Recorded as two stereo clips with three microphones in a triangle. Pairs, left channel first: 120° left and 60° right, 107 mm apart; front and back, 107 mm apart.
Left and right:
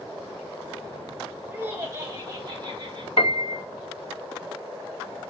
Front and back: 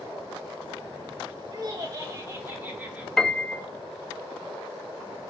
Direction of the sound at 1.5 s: 135° right.